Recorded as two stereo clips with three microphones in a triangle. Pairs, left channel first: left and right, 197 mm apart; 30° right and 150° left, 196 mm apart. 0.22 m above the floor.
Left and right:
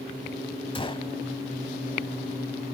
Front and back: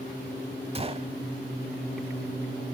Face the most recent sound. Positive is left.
turn(degrees=125)